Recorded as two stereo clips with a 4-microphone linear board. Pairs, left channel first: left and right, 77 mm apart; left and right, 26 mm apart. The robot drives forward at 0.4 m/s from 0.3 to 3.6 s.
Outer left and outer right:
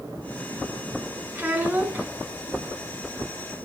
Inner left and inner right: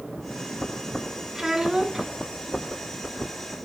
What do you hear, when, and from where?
1.4 s a child speaking: 25° right (ahead or behind), 1.2 m